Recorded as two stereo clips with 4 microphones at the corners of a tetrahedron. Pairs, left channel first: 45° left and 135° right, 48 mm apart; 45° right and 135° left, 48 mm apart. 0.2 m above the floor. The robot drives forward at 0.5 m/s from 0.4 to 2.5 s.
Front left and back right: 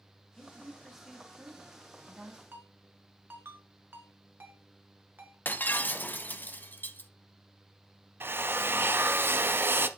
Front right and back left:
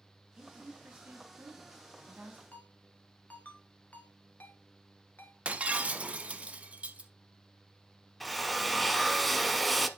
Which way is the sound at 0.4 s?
120° left.